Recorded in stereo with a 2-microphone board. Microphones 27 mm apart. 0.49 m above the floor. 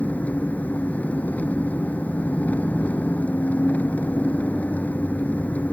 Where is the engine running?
85° left.